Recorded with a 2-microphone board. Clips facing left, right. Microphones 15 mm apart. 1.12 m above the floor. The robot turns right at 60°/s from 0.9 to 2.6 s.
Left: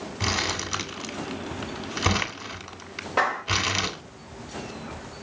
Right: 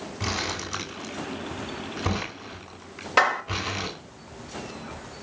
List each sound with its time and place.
0.2 s crumpling: 20° left (ahead or behind), 2.5 m; by 4.0 s 60° left (ahead or behind), 2.5 m
3.2 s a clap: 60° right (ahead or behind), 4 m